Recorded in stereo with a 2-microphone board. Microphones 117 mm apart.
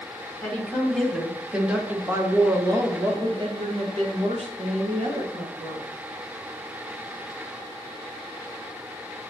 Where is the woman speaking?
15° left (ahead or behind), 2.5 m; by 5.9 s 80° right, 3 m.